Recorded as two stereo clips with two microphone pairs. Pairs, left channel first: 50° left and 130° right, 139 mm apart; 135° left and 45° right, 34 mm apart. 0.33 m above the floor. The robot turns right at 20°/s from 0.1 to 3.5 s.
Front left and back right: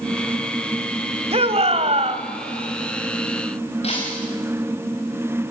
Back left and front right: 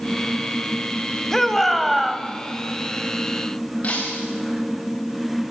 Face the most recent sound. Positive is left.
turn(degrees=90)